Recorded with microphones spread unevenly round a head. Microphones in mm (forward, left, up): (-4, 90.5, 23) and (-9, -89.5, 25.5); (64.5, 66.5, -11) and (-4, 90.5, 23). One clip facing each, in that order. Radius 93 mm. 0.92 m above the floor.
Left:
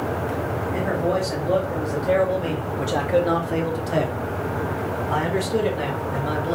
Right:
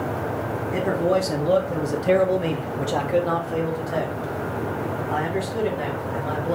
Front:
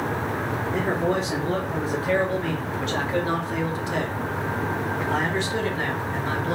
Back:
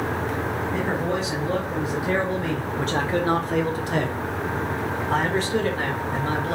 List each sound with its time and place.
0.7 s a man speaking: 85° right, 1.3 m; by 6.5 s 105° left, 2 m